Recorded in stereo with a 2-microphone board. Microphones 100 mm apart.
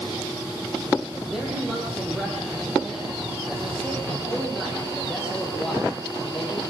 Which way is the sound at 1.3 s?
5° right (ahead or behind).